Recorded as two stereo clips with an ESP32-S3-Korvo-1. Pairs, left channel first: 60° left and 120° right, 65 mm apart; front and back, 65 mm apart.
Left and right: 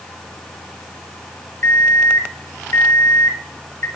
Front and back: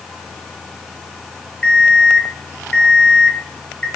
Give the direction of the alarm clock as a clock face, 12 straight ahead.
10 o'clock.